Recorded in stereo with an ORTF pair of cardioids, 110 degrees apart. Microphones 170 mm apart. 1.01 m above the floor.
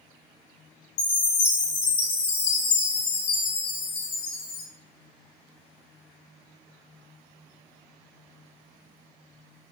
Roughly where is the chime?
Left.